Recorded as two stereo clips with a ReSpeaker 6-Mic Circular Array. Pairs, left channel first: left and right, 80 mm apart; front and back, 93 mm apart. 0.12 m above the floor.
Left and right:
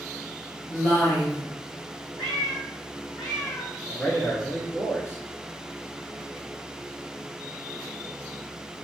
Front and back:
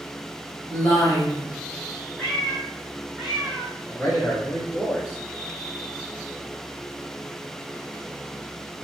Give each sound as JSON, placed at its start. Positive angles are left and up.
{"t": 0.7, "sound": "a woman speaking", "azimuth_deg": 45, "distance_m": 1.8}
{"t": 2.2, "sound": "a cat meowing", "azimuth_deg": 80, "distance_m": 1.8}
{"t": 3.9, "sound": "a man speaking", "azimuth_deg": 55, "distance_m": 1.6}